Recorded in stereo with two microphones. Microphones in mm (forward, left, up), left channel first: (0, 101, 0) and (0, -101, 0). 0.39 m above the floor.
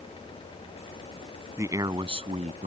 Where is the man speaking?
15° right (ahead or behind); by 2.7 s 40° right (ahead or behind).